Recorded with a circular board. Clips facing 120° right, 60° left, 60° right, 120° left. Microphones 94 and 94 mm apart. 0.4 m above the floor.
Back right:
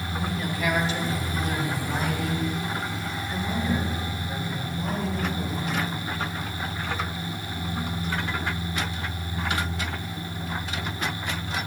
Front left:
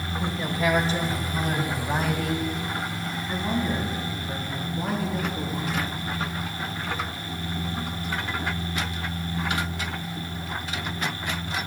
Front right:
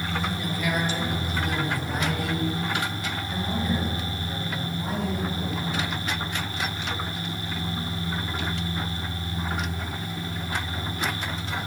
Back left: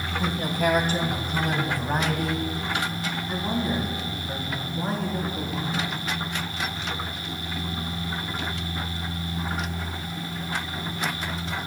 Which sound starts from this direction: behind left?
A woman speaking, at 0.2 s.